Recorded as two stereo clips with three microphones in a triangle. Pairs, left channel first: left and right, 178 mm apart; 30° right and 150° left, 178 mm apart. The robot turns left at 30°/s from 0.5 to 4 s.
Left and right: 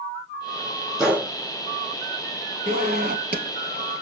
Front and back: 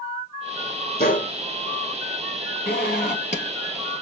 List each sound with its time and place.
1.0 s a gunshot: straight ahead, 3 m; by 1.3 s 10° right, 3 m
2.7 s a zipper: 55° right, 3.5 m; by 4.0 s 95° right, 3.5 m